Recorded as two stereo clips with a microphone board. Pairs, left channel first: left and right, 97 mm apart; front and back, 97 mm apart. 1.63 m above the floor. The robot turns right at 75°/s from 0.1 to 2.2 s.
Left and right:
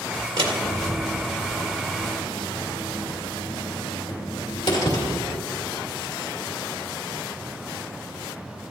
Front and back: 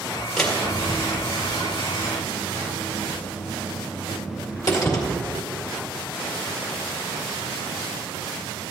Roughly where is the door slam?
Right.